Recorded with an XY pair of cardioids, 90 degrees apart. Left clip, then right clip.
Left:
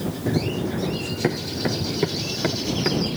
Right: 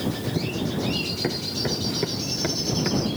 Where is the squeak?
I don't hear a squeak.